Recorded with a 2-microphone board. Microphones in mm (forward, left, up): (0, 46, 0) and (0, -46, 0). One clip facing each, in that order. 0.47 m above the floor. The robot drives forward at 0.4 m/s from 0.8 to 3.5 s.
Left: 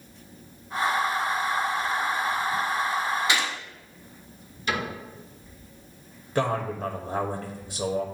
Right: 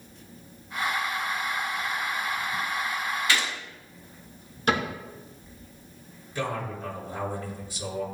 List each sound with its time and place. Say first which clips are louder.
3.3 s a gunshot: left 1 dB; 20° left (ahead or behind), 1.6 m
4.7 s a cupboard door: right 3 dB; 50° right (ahead or behind), 3 m
6.3 s a man speaking: left 5 dB; 60° left (ahead or behind), 1.6 m